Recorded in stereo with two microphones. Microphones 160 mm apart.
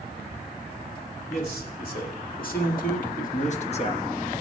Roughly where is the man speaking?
Left.